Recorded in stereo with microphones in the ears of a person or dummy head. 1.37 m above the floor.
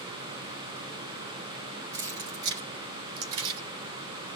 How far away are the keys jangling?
About 1.9 m.